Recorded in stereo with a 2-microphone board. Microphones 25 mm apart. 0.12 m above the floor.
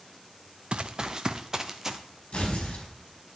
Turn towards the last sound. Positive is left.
turn(degrees=50)  # may be behind; listen again after turning